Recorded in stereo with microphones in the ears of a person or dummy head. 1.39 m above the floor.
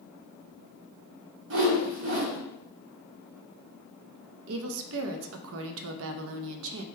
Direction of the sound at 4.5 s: 75° right (ahead or behind).